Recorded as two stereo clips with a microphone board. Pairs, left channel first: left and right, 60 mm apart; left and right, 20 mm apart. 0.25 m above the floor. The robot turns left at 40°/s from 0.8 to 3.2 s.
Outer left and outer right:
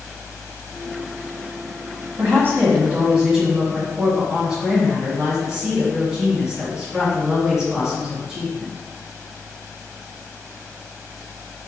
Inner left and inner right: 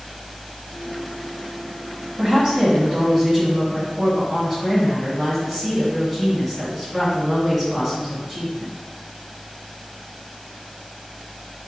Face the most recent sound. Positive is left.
turn(degrees=-165)